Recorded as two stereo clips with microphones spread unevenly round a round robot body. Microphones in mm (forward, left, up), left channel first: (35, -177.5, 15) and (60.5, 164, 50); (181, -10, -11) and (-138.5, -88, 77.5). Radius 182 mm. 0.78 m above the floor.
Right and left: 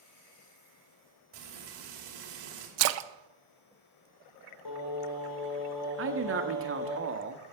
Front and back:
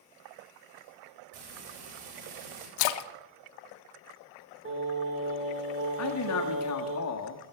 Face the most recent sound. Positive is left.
turn(degrees=35)